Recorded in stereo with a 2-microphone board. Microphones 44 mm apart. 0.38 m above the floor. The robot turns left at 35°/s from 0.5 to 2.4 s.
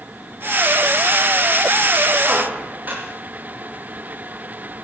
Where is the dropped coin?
No dropped coin in this recording.